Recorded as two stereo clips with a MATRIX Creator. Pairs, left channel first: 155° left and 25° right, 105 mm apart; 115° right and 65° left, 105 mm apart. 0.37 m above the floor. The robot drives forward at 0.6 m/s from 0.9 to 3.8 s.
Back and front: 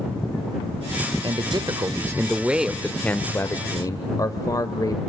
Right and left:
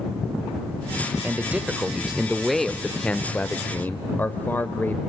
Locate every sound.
1.2 s a man speaking: 5° right, 1.2 m; by 5.0 s 175° right, 1.0 m